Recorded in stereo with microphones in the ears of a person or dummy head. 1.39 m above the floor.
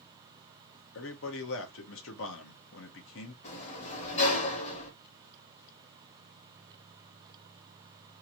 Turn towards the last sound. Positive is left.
turn(degrees=40)  # may be behind; listen again after turning